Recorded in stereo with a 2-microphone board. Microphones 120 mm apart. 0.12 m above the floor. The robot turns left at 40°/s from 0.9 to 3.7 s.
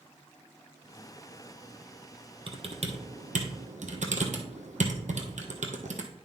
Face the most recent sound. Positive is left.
turn(degrees=-75)  # may be behind; listen again after turning